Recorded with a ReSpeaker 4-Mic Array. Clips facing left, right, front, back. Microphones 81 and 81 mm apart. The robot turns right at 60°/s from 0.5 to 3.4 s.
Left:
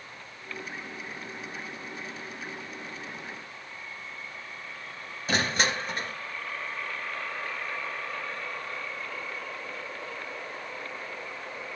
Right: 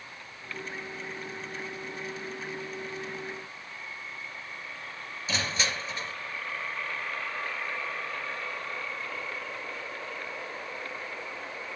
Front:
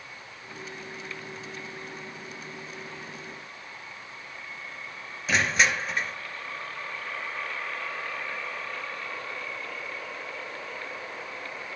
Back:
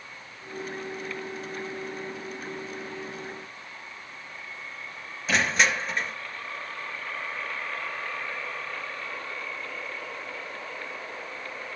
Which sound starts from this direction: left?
Crushing, at 5.3 s.